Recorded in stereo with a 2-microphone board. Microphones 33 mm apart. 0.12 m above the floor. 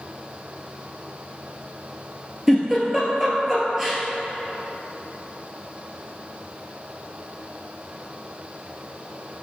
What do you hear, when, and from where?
2.5 s a giggle: 5° right (ahead or behind), 1.1 m